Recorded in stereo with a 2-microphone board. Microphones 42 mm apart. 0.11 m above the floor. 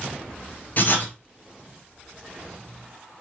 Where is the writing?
45° left (ahead or behind), 0.9 m.